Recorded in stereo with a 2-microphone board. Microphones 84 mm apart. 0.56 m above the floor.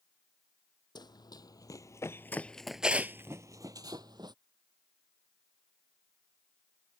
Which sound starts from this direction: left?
Running footsteps, at 0.9 s.